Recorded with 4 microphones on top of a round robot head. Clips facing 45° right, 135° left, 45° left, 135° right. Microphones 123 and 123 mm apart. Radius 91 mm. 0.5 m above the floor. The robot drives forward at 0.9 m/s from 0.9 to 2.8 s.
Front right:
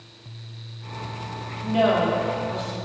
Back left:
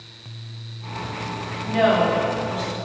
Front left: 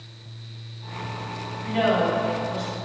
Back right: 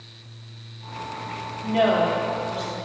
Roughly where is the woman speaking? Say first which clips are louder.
Back left 2 dB, back right 2 dB; right.